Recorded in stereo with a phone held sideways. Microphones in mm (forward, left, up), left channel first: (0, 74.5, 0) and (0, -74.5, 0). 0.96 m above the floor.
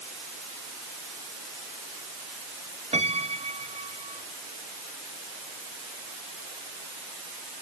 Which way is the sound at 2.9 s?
45° right (ahead or behind).